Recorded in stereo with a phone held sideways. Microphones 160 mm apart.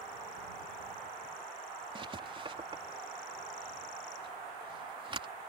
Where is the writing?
35° right (ahead or behind).